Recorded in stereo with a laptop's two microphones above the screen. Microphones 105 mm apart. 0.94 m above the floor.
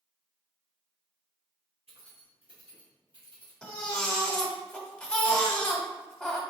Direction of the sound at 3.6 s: 5° left (ahead or behind).